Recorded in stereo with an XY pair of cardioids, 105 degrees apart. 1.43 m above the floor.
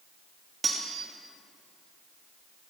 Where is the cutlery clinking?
35° right, 1.7 m.